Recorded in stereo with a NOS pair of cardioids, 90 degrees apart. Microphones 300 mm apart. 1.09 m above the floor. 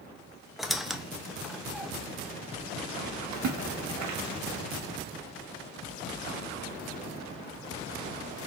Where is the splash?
65° right, 1.0 m.